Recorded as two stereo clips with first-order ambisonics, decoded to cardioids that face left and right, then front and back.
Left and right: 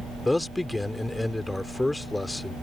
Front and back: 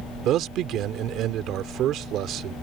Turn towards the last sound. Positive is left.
turn(degrees=170)